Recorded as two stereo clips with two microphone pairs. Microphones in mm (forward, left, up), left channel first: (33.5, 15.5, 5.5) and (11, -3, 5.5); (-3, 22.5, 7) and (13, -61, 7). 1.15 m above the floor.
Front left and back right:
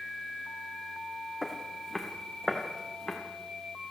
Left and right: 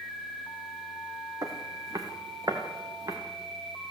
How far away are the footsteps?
About 3 m.